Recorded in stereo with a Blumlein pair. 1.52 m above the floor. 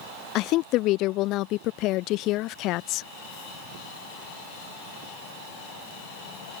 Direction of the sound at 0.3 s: 40° left.